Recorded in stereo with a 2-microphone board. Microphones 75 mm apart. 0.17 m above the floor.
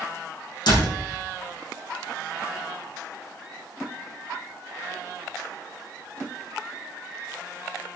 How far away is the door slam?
About 5 m.